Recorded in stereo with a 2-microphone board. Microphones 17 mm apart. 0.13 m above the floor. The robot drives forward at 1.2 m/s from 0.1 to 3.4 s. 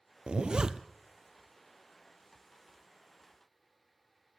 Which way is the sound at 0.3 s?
75° right (ahead or behind).